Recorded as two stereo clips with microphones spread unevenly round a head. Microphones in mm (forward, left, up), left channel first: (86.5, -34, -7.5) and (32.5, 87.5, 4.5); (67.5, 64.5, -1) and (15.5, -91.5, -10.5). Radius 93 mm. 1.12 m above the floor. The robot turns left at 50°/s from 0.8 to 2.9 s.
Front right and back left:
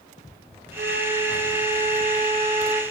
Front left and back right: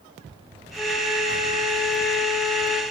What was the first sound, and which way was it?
A flute, 150° left.